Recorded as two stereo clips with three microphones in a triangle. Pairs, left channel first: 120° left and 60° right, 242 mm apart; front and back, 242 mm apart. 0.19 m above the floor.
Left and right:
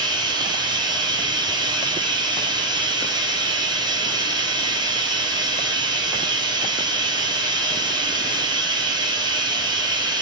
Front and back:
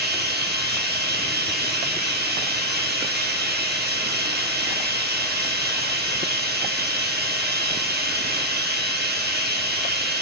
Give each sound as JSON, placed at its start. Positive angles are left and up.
{"t": 0.0, "sound": "running water", "azimuth_deg": -135, "distance_m": 2.5}